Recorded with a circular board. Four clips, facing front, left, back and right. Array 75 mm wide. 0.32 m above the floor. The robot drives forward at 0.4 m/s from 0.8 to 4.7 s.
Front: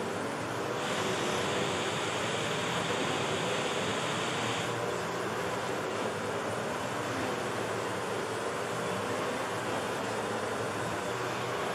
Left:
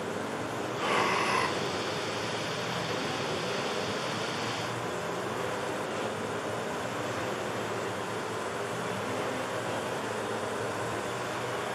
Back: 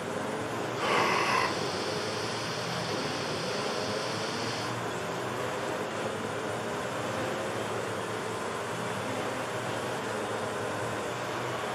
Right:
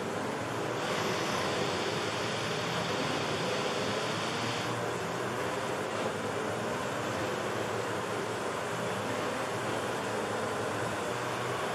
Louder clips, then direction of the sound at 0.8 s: Left 8 dB, back 9 dB; 145° left.